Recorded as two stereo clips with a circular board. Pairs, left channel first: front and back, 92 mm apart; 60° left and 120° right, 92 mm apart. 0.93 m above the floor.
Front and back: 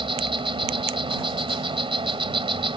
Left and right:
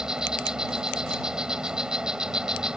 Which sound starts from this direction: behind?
An insect, at 0.0 s.